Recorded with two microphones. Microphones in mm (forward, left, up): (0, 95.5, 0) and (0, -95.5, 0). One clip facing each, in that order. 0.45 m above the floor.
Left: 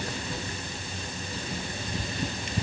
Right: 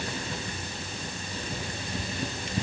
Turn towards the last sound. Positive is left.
No sound to turn to.